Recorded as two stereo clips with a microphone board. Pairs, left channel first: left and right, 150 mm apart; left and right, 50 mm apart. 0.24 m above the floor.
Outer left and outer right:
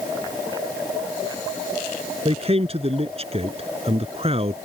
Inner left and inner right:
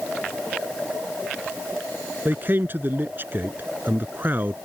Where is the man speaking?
40° right (ahead or behind).